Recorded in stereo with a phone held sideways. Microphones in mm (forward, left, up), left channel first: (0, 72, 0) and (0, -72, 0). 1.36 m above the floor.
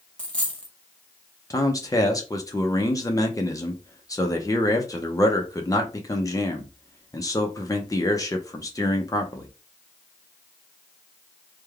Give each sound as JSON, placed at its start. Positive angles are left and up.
{"t": 0.2, "sound": "a dropped coin", "side_deg": 5, "distance_m": 0.8}
{"t": 1.5, "sound": "a man speaking", "side_deg": 25, "distance_m": 0.5}